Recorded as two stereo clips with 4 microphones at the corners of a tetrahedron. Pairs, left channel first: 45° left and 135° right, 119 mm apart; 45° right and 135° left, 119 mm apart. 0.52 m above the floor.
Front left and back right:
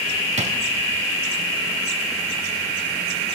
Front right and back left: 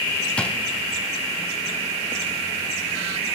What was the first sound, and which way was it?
A drawer, 125° right.